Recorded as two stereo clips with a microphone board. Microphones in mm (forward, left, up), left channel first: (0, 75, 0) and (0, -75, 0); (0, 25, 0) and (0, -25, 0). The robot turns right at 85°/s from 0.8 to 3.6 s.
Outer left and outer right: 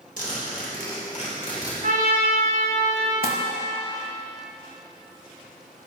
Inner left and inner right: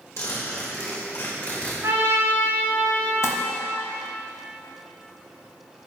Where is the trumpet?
115° right, 3 m; by 3.1 s straight ahead, 3 m.